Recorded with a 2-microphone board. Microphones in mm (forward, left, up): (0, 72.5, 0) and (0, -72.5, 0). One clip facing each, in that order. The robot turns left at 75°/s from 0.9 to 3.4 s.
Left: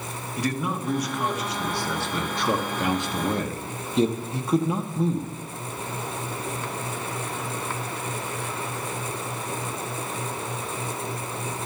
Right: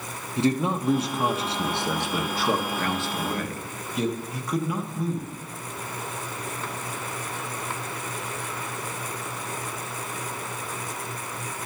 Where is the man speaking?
25° right (ahead or behind), 0.7 m; by 5.3 s 25° left (ahead or behind), 0.7 m.